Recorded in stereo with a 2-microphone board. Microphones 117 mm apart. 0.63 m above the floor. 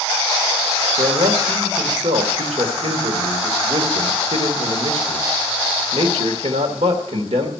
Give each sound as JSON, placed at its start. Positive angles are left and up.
{"t": 1.0, "sound": "a man speaking", "side_deg": -70, "distance_m": 1.6}